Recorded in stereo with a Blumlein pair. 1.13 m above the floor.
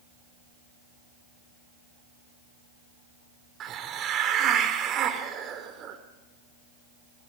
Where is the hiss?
30° right, 2 m.